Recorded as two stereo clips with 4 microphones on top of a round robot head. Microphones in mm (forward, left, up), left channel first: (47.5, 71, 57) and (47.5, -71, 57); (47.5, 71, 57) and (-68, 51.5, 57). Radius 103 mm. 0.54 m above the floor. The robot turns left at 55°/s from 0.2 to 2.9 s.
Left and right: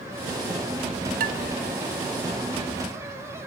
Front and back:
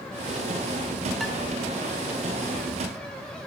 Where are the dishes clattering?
80° right, 1.8 m; by 1.4 s 90° right, 1.8 m.